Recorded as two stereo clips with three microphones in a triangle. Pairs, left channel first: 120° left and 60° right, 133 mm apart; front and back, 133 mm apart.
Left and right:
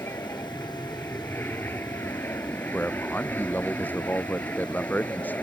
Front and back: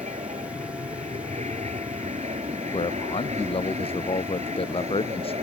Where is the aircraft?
170° right; by 5.4 s 165° right.